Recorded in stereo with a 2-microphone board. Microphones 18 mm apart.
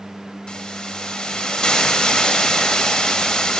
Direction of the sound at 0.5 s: 50° left (ahead or behind).